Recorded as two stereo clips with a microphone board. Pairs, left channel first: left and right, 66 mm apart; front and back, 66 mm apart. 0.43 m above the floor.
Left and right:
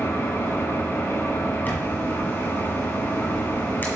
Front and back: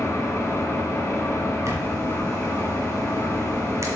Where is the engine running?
45° left, 1.2 m.